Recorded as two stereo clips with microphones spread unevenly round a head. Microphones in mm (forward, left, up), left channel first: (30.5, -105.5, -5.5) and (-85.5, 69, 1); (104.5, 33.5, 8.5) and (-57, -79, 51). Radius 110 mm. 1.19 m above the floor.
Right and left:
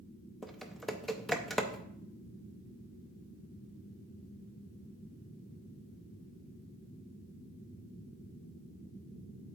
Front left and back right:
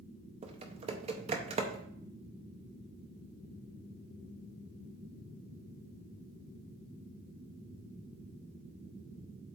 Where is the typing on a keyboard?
150° right, 0.6 m.